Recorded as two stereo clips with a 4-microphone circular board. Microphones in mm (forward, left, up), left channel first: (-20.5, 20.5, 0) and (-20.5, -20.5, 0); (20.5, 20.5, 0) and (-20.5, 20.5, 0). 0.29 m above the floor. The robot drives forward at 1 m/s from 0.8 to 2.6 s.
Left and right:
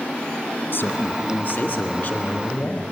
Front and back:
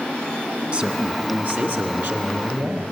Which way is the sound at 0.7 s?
120° left.